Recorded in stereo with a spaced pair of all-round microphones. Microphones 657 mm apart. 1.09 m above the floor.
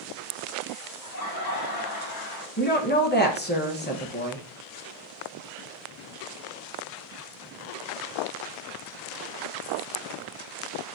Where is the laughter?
70° left (ahead or behind), 2 m.